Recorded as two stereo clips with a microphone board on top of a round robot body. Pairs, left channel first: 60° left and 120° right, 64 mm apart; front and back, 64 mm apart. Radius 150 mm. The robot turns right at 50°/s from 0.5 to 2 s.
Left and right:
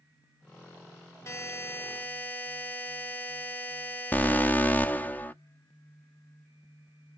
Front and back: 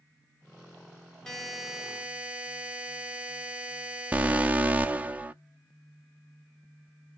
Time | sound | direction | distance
1.3 | a buzzer | 80° left | 1.0 m
4.1 | an alarm | 120° left | 0.6 m